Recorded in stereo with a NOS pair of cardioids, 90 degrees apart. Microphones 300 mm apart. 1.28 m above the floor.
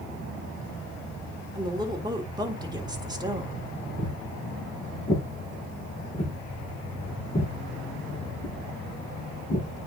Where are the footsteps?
20° left, 6 m.